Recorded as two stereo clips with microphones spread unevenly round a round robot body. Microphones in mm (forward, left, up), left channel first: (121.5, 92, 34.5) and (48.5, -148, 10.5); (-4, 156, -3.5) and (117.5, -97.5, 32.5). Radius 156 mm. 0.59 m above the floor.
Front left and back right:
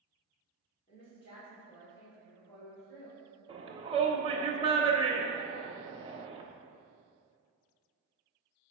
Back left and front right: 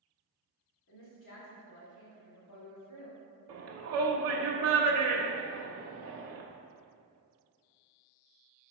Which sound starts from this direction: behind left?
A woman speaking, at 0.9 s.